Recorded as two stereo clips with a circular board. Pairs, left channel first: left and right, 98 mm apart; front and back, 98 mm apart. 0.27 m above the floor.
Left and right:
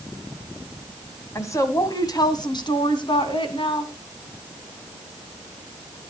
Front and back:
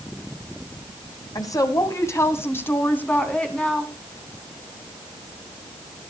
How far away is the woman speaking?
About 2.0 m.